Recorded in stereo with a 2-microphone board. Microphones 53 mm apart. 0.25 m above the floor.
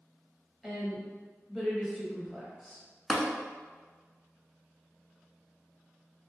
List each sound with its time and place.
0.6 s a woman speaking: centre (ahead or behind), 0.9 m
3.1 s tapping: 5° left (ahead or behind), 0.6 m